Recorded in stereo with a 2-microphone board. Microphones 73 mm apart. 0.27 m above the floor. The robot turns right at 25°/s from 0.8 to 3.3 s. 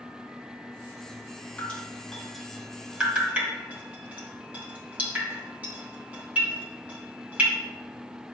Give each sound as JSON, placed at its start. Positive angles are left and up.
{"t": 1.6, "sound": "dripping", "side_deg": 20, "distance_m": 2.5}